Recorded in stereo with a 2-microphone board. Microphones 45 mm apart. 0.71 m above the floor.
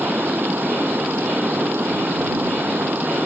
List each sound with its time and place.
0.0 s running water: 50° right (ahead or behind)